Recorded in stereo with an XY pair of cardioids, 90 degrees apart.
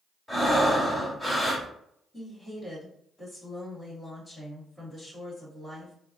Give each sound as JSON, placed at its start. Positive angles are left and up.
{"t": 0.3, "sound": "breathing", "azimuth_deg": 5, "distance_m": 1.7}
{"t": 2.1, "sound": "a woman speaking", "azimuth_deg": 25, "distance_m": 1.7}